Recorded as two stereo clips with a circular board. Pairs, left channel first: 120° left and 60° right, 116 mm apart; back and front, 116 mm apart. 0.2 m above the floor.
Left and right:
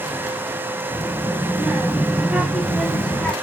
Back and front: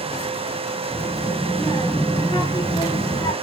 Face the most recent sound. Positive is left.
turn(degrees=-165)